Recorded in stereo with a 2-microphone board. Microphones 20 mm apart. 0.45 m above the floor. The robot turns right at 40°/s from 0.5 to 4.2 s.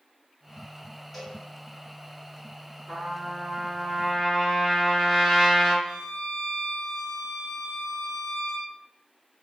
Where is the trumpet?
45° right, 2.0 m; by 5.7 s 10° left, 2.0 m.